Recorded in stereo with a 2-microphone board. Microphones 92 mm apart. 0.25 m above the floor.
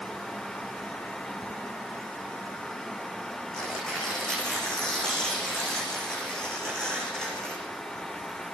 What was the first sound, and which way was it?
Tearing paper, 5° left (ahead or behind).